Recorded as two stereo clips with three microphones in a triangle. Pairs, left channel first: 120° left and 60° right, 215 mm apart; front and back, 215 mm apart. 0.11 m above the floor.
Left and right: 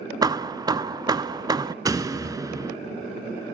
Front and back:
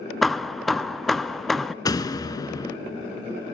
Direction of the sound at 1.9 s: 25° right.